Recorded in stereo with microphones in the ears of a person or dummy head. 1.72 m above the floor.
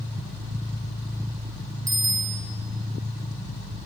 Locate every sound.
1.9 s a bicycle bell: 15° right (ahead or behind), 2.5 m